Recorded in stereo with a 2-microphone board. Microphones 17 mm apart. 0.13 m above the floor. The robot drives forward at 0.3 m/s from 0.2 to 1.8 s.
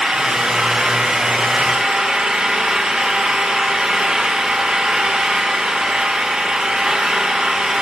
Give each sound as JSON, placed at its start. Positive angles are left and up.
{"t": 0.0, "sound": "an engine running", "side_deg": -85, "distance_m": 5.5}